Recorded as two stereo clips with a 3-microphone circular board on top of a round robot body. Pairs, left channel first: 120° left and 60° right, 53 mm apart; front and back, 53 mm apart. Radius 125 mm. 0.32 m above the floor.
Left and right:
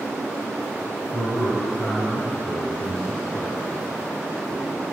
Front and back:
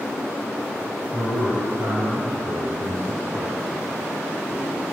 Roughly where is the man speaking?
Behind.